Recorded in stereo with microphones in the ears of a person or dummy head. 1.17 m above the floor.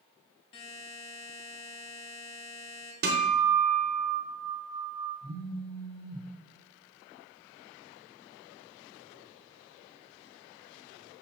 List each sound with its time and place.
0.5 s a buzzer: 35° left (ahead or behind), 0.8 m
3.0 s a guitar: 50° right (ahead or behind), 0.8 m
5.2 s a phone buzzing: 20° right (ahead or behind), 1.4 m